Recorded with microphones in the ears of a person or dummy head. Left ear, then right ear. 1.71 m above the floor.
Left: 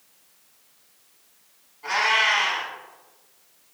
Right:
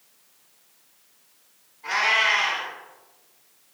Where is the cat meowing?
50° left (ahead or behind), 1.7 m.